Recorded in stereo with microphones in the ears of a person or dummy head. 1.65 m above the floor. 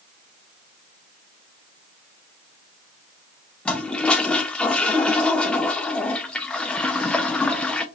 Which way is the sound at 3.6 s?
5° left (ahead or behind).